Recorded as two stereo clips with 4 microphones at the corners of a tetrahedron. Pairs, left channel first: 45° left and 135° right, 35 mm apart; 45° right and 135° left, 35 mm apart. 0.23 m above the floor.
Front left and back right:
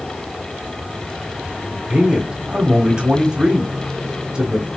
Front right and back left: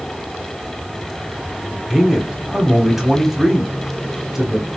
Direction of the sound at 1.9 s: 155° right.